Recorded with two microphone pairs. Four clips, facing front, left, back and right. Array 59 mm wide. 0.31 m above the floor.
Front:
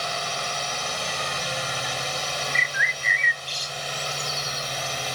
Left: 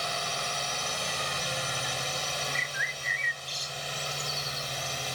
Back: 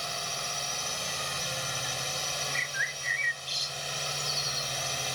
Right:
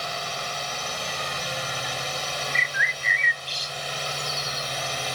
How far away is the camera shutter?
No camera shutter in this recording.